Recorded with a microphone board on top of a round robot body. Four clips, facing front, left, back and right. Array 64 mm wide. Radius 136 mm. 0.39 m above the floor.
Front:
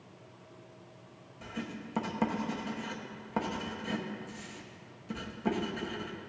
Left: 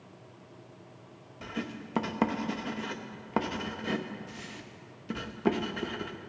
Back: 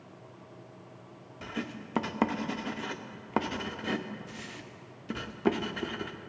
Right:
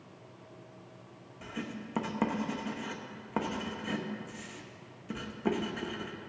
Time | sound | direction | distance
1.4 | writing | 160° left | 1.0 m